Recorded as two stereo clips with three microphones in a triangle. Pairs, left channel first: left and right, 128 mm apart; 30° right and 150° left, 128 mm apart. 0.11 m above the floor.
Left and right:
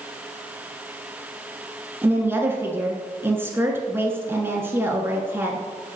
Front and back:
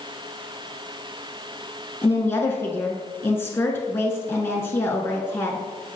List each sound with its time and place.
2.0 s a woman speaking: 60° right, 1.2 m